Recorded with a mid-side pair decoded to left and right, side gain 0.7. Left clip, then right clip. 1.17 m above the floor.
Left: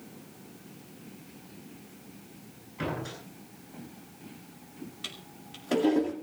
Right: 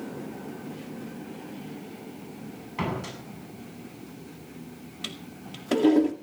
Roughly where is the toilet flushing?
Ahead.